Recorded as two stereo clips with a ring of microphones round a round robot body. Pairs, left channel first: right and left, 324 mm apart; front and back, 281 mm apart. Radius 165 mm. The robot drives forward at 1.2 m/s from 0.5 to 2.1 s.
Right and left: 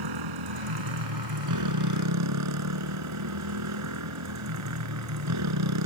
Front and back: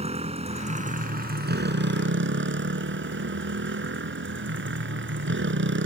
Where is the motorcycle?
110° left; by 5.9 s 130° left.